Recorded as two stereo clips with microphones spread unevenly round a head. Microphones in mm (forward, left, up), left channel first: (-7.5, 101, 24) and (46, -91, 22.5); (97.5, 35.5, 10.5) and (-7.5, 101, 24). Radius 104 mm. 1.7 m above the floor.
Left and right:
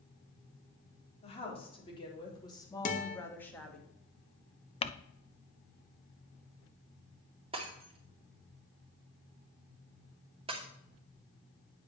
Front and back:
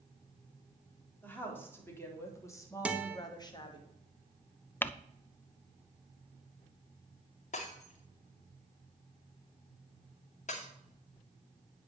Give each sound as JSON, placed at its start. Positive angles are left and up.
{"t": 1.2, "sound": "a woman speaking", "azimuth_deg": 45, "distance_m": 4.0}
{"t": 2.9, "sound": "a guitar", "azimuth_deg": 80, "distance_m": 1.2}
{"t": 4.8, "sound": "crumpling", "azimuth_deg": 45, "distance_m": 0.6}
{"t": 7.5, "sound": "breaking glass", "azimuth_deg": -15, "distance_m": 2.0}